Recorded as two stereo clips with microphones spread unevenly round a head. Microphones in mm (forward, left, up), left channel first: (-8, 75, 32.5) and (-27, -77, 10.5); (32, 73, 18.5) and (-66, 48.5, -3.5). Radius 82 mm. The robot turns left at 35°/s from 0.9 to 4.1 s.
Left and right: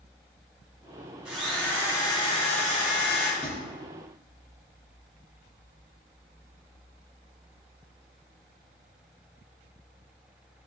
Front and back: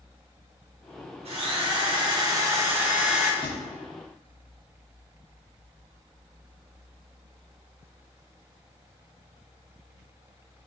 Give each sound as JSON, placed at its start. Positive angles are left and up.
{"t": 1.2, "sound": "a drill", "azimuth_deg": 180, "distance_m": 3.0}
{"t": 3.4, "sound": "a thud", "azimuth_deg": 35, "distance_m": 4.5}